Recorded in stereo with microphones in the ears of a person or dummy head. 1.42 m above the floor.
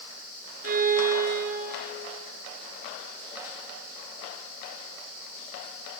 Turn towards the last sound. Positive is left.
turn(degrees=-60)  # may be behind; listen again after turning